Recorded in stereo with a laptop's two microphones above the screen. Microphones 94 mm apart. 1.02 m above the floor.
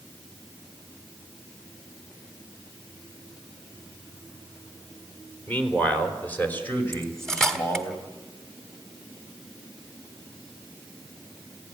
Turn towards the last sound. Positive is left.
turn(degrees=5)  # may be behind; listen again after turning